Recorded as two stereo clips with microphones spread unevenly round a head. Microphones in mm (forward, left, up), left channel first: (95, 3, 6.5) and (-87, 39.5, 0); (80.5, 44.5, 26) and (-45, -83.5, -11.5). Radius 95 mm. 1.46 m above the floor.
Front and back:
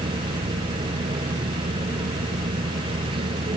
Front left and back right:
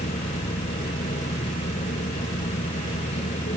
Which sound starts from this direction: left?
A machine running, at 0.0 s.